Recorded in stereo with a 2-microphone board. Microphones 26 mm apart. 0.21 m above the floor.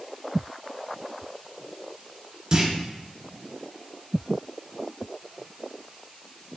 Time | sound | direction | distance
2.5 | a clunk | 35° right (ahead or behind) | 1.2 m